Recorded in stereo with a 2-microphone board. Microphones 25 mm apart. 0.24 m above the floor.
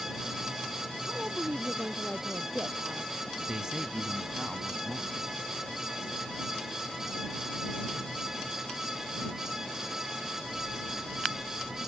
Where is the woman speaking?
45° right (ahead or behind); by 3.1 s 50° right (ahead or behind).